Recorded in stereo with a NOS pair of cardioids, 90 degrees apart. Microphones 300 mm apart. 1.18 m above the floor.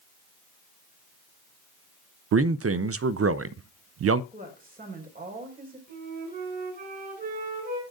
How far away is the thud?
I don't hear a thud.